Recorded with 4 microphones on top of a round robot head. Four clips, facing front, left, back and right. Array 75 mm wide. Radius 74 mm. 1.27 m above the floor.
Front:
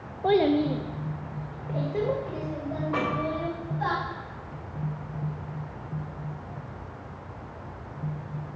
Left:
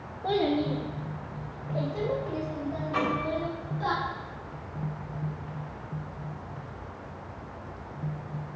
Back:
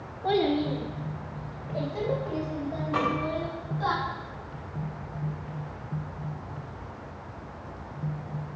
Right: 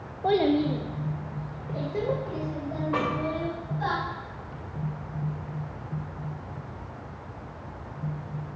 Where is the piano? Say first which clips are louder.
Even, back 1 dB; 60° right, 5 m.